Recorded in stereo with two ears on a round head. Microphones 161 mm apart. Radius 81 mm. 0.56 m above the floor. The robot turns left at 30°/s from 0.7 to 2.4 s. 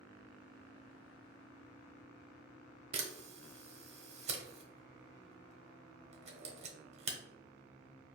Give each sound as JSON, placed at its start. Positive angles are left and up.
{"t": 2.9, "sound": "a camera shutter", "side_deg": -40, "distance_m": 0.9}